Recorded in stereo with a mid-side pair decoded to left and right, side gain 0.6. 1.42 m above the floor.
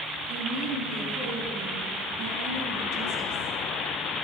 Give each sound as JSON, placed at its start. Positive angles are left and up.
{"t": 0.3, "sound": "a woman speaking", "azimuth_deg": -65, "distance_m": 3.0}